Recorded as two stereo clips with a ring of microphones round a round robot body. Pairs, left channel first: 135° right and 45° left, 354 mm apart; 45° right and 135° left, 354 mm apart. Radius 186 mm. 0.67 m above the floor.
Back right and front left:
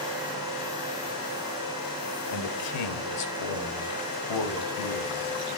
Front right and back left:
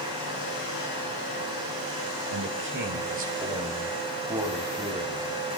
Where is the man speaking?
175° right, 2.5 m; by 5.3 s 140° right, 5 m.